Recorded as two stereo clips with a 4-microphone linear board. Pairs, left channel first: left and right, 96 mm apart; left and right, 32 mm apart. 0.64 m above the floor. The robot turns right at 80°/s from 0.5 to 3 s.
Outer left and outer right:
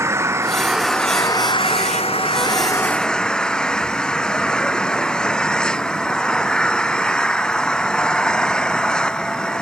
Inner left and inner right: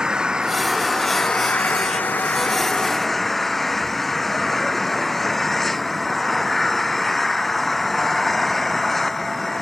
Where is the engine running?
30° right; by 9.6 s 170° left.